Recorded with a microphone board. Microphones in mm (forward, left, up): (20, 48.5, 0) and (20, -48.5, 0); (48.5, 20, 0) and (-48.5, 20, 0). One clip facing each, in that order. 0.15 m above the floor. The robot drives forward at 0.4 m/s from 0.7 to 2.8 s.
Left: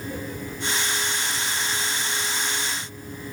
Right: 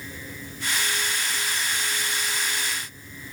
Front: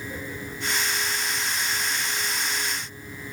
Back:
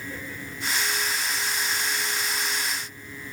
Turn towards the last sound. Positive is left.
No sound to turn to.